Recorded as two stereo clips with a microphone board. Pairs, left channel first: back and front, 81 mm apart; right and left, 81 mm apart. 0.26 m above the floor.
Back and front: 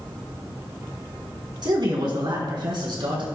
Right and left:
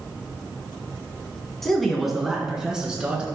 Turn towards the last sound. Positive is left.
turn(degrees=10)